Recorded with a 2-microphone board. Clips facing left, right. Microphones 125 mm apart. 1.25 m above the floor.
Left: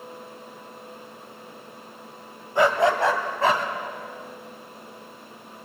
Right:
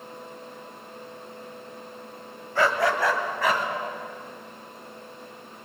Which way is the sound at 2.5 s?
20° left (ahead or behind).